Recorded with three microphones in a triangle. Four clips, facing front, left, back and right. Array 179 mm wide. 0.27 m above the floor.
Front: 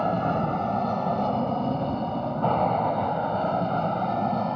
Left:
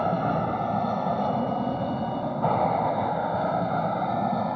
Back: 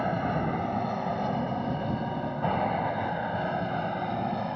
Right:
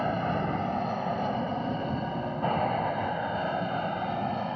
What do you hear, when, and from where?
0.0 s an aircraft: 50° left